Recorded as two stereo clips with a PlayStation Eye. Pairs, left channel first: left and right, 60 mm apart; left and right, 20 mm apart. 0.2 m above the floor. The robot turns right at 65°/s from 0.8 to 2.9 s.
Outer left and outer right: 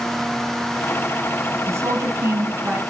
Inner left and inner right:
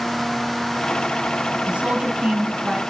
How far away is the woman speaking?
About 1.8 m.